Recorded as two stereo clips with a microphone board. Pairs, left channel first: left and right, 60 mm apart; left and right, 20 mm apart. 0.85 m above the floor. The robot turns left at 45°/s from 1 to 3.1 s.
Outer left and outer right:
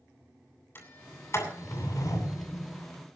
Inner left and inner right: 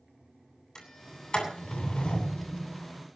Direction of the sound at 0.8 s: 40° left (ahead or behind).